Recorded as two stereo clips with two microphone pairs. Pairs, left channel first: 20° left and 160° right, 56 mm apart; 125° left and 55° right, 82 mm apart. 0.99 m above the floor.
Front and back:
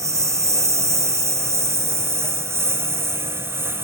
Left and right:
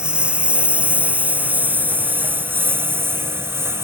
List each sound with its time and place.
0.0 s a lawn mower: 135° right; by 3.9 s 120° right